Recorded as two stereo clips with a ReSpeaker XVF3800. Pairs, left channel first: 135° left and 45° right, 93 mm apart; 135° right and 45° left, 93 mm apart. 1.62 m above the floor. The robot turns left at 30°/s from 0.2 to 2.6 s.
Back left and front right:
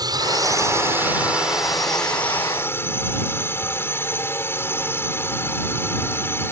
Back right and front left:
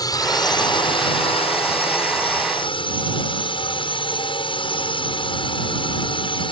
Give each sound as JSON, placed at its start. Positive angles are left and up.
{"t": 0.0, "sound": "a drone", "azimuth_deg": -90}